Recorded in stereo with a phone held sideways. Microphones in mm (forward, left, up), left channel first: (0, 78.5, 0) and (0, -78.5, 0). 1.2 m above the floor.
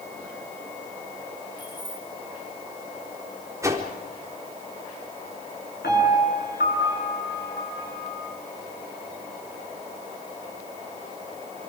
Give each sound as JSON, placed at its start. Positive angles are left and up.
{"t": 1.6, "sound": "keys jangling", "side_deg": 30, "distance_m": 5.5}
{"t": 3.6, "sound": "a whoosh", "side_deg": -20, "distance_m": 4.0}
{"t": 5.8, "sound": "a piano", "side_deg": 85, "distance_m": 9.0}